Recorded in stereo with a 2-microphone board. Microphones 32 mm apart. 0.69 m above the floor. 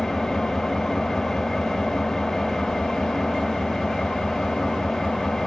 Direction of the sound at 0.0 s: 20° left (ahead or behind).